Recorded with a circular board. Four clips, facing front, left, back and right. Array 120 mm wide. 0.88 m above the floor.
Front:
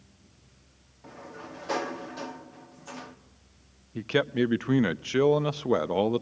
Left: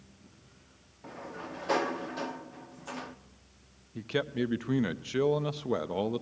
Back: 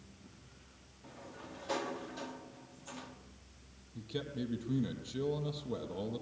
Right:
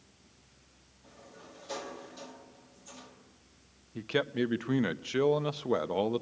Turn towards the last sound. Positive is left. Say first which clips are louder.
# right 1 dB, front 14 dB
turn(degrees=-5)